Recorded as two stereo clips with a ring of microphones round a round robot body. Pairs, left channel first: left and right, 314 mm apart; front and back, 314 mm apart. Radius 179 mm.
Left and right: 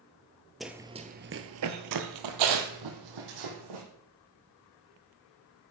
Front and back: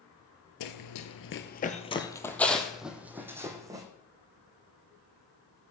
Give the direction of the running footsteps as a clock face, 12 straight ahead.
12 o'clock.